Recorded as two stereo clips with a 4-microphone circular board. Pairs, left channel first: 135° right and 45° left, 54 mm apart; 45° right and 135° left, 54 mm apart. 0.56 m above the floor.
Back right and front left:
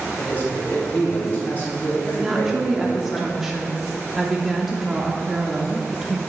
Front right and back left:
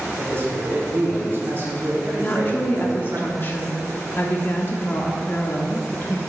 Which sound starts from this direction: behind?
A man speaking, at 0.2 s.